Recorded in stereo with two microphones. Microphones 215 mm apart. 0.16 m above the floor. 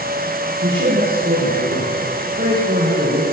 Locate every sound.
0.6 s a man speaking: 60° right (ahead or behind), 8 m; by 3.2 s 50° right (ahead or behind), 7 m